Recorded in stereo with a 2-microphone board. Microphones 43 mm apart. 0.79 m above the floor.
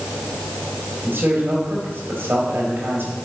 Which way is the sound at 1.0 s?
55° right (ahead or behind).